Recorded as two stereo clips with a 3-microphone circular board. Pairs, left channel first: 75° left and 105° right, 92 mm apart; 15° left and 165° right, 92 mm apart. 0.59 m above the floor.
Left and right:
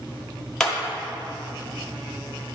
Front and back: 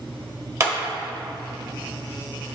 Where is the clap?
160° left, 1.1 m.